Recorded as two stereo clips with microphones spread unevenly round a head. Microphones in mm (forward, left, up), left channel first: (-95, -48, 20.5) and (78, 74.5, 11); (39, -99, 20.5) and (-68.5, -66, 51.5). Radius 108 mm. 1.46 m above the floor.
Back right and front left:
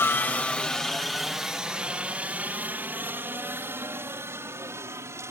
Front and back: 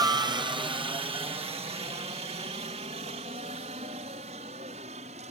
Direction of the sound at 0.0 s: 150° left.